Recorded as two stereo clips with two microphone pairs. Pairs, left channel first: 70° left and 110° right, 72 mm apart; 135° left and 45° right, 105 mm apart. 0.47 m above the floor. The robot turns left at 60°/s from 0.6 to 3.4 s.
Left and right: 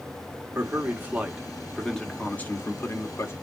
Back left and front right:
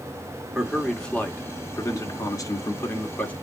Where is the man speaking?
130° right, 1.2 m; by 3.3 s 70° left, 1.2 m.